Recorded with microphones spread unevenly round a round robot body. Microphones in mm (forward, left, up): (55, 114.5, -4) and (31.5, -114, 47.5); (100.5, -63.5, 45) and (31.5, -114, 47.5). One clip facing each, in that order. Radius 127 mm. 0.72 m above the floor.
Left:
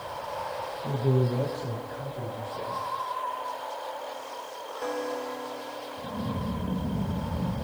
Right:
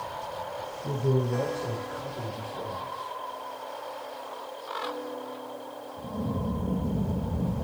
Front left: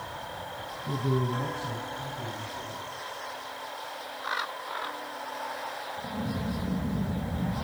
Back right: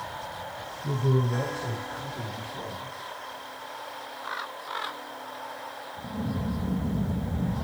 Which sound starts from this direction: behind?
A man speaking, at 0.8 s.